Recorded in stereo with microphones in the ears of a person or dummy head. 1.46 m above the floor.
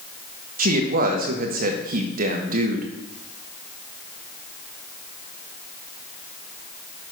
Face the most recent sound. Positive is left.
turn(degrees=-50)  # may be behind; listen again after turning